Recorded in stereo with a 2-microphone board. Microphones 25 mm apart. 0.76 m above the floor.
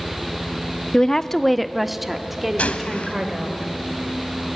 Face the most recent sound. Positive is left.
turn(degrees=70)  # may be behind; listen again after turning